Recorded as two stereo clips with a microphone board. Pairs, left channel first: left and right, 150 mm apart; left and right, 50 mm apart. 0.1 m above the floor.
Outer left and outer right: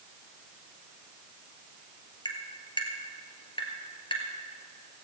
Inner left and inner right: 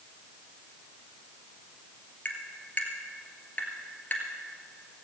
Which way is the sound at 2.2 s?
35° left (ahead or behind).